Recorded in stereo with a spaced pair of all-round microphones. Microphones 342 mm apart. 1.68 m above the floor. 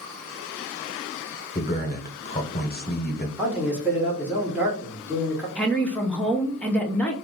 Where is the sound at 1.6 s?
30° left (ahead or behind), 0.7 m.